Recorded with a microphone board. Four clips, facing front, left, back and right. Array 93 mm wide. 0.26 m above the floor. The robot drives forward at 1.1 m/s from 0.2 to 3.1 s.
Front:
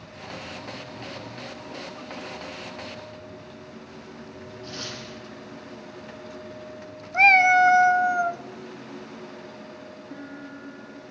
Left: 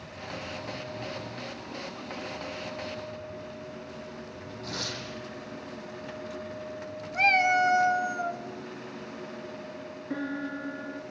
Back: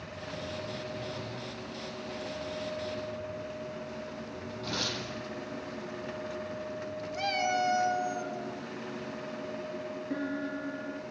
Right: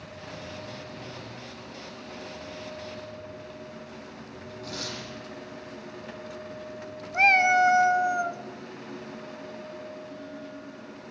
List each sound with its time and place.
4.6 s tearing paper: 170° right, 9.5 m
7.1 s a cat meowing: 15° right, 0.6 m
10.1 s a piano: 110° left, 1.5 m